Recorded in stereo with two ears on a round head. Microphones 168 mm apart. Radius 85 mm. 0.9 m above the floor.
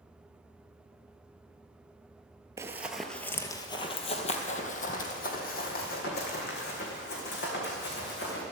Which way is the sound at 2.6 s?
15° right (ahead or behind).